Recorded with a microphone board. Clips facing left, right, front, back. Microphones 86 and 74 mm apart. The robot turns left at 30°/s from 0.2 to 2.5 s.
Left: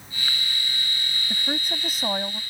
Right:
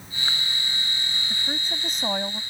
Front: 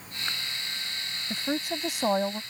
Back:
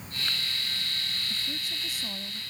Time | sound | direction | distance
1.3 | a woman speaking | 25° left | ?